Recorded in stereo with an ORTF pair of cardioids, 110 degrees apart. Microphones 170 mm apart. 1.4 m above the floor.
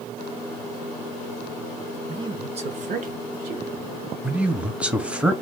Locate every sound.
2.1 s a man speaking: 25° right, 0.9 m; by 3.9 s 65° right, 1.3 m
4.2 s a man speaking: 5° right, 0.8 m